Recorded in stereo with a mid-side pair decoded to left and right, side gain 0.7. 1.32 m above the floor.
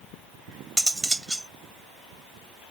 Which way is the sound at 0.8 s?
10° right.